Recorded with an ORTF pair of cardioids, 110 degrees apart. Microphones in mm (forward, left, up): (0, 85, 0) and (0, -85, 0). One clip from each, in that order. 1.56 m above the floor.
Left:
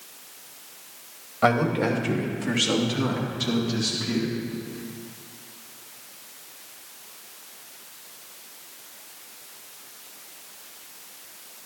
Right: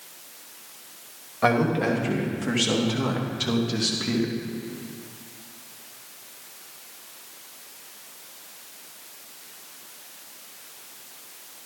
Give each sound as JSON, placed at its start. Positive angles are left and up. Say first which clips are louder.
{"t": 1.4, "sound": "a man speaking", "louder": "even", "azimuth_deg": 10, "distance_m": 3.0}